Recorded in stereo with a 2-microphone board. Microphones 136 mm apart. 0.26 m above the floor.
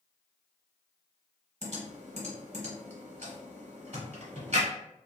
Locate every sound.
1.6 s typing on a keyboard: 55° right (ahead or behind), 1.1 m